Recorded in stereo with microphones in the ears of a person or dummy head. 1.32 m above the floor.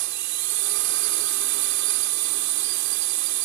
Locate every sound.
0.0 s a drone: 65° right (ahead or behind)